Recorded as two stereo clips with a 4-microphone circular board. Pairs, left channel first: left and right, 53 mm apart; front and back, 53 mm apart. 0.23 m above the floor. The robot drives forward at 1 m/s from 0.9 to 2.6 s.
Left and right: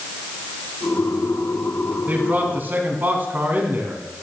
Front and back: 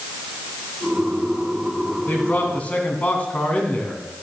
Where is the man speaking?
40° right, 2.5 m; by 4.2 s 50° right, 2.5 m.